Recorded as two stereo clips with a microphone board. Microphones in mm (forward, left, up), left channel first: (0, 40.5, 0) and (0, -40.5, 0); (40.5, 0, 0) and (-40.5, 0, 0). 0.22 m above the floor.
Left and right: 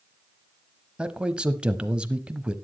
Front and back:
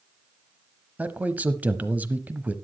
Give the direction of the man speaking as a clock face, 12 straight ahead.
5 o'clock.